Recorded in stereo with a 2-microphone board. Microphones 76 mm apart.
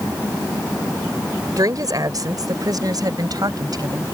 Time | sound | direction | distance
1.6 | a woman speaking | 55° right (ahead or behind) | ?